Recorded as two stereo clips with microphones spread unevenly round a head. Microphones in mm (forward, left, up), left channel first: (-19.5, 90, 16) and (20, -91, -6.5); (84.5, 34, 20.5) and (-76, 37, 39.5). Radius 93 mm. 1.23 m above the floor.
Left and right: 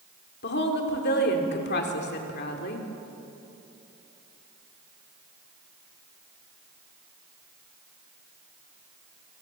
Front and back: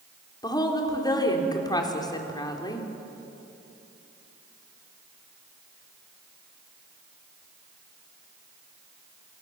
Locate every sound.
0.4 s a woman speaking: 65° left, 4 m